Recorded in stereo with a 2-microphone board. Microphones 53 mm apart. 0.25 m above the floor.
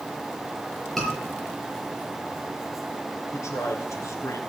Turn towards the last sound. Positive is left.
turn(degrees=70)  # may be behind; listen again after turning